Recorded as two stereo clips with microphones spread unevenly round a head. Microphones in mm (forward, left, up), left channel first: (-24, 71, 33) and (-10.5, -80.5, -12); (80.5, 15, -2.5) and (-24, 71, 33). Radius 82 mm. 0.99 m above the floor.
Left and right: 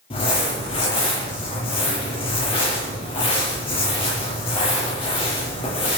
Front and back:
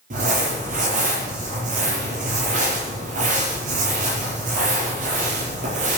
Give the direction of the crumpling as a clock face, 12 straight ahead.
7 o'clock.